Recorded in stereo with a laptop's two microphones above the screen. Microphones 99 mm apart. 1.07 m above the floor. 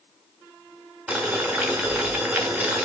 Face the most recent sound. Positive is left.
turn(degrees=-15)  # may be behind; listen again after turning